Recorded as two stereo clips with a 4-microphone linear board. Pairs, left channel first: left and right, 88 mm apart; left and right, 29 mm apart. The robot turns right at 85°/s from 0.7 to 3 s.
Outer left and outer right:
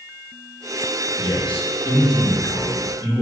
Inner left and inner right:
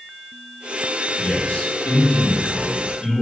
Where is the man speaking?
55° left, 5.5 m; by 3.2 s 150° right, 5.5 m.